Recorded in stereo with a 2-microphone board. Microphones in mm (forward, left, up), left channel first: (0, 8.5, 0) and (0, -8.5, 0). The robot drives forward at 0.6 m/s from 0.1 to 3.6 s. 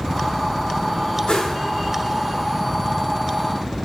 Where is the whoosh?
60° left (ahead or behind), 1.2 m; by 1.6 s 65° left (ahead or behind), 1.2 m.